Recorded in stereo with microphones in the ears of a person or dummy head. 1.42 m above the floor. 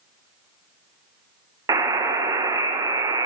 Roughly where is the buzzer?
Centre.